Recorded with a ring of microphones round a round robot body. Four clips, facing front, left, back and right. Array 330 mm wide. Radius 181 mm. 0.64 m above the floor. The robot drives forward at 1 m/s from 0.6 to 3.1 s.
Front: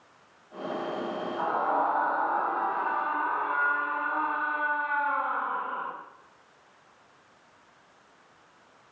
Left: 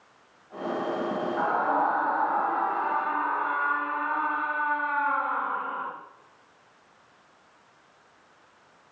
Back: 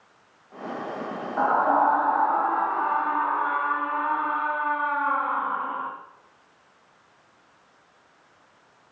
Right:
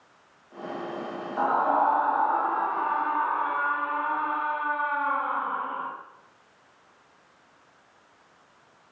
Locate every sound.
1.4 s a scream: 160° right, 3.5 m; by 5.9 s 165° right, 5 m